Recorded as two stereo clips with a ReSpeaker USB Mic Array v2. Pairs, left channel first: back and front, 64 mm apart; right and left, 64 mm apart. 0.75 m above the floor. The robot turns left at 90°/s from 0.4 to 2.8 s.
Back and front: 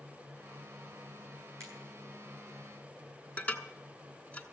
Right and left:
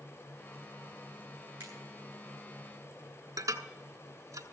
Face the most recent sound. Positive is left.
turn(degrees=120)